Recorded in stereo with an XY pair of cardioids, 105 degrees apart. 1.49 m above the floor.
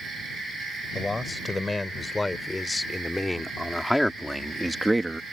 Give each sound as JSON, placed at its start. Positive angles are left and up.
{"t": 0.9, "sound": "a man speaking", "azimuth_deg": 15}